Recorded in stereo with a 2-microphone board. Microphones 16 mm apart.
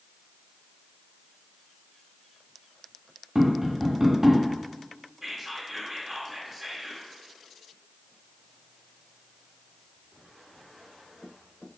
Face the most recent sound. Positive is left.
turn(degrees=-20)  # may be behind; listen again after turning